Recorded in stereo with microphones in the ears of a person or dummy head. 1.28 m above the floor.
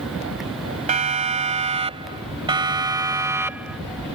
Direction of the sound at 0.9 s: 40° right (ahead or behind).